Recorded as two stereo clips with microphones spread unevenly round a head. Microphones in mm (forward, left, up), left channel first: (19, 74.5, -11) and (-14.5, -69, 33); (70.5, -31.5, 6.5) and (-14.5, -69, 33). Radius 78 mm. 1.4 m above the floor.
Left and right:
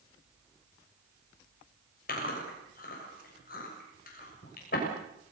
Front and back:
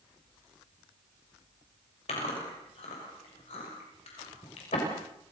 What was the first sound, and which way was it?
Chewing, 50° left.